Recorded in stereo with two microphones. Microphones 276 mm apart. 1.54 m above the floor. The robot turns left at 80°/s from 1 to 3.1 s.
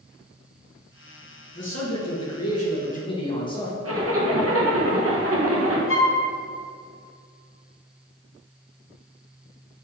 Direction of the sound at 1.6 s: 140° left.